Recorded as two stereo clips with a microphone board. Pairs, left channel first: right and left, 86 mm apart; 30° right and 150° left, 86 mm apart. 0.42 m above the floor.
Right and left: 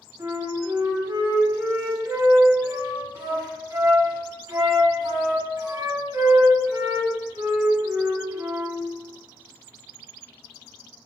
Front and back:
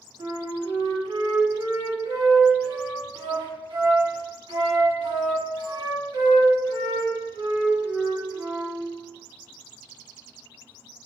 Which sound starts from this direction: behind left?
A flute, at 0.2 s.